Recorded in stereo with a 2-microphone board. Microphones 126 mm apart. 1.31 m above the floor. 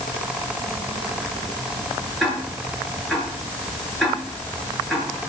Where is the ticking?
Centre (ahead or behind), 9 m.